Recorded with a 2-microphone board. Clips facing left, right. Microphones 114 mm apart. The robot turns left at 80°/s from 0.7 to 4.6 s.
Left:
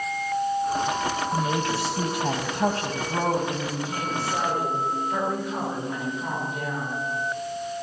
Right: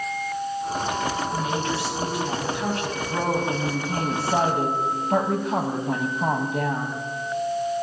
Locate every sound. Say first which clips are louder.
1.3 s a woman speaking: left 1 dB; 160° left, 3 m; by 7.0 s 105° right, 3 m